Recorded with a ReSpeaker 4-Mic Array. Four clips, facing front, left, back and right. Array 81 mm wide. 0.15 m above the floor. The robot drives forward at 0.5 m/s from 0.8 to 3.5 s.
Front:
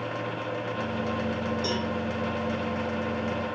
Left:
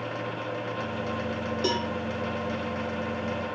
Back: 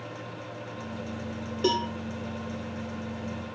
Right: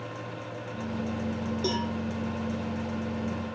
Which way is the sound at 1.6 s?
165° left.